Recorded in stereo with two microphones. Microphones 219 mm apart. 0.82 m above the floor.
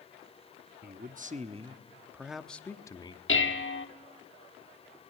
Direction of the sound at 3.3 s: 60° left (ahead or behind).